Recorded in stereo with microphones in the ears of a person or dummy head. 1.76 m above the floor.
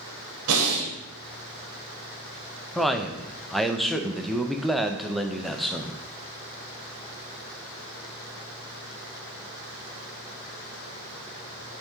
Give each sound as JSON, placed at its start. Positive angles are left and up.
{"t": 0.5, "sound": "breathing", "side_deg": -75, "distance_m": 1.7}
{"t": 2.8, "sound": "a man speaking", "side_deg": 0, "distance_m": 0.6}